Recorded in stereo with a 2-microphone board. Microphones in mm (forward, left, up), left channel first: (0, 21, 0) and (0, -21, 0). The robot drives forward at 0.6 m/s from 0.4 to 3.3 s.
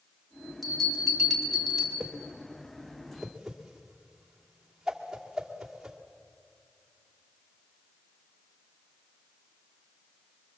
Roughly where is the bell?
Centre.